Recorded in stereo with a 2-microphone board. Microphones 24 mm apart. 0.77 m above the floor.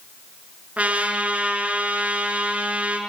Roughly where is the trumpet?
Right.